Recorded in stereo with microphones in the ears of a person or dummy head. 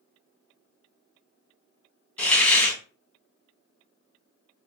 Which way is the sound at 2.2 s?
10° left (ahead or behind).